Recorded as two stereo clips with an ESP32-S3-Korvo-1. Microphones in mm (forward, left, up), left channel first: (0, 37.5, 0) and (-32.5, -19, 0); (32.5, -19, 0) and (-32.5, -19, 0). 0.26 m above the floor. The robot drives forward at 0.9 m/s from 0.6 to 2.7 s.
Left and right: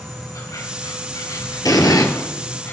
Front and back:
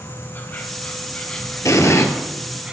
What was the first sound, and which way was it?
An insect, 55° left.